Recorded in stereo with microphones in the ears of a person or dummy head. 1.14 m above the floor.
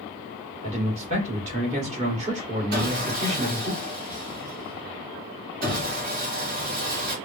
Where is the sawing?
40° right (ahead or behind), 1.5 m.